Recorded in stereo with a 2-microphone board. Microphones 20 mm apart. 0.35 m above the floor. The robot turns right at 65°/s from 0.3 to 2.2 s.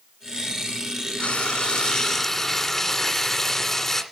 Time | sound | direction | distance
1.2 | frying | 95° left | 1.8 m